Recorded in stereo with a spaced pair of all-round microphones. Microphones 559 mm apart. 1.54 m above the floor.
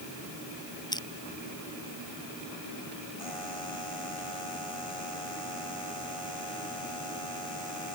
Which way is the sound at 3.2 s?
65° left (ahead or behind).